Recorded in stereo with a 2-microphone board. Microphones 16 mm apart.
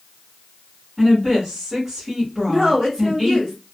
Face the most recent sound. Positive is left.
turn(degrees=-35)  # may be behind; listen again after turning